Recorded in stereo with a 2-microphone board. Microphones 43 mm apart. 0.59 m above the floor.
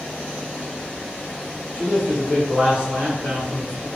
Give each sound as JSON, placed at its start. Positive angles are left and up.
{"t": 1.7, "sound": "a man speaking", "side_deg": -30, "distance_m": 1.6}